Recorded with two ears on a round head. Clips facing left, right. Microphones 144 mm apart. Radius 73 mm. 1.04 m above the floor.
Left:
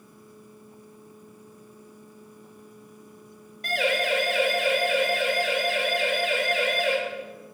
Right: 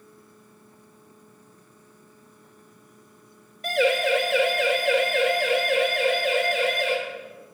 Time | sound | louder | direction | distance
3.6 | a siren | right 4 dB | 85° right | 4 m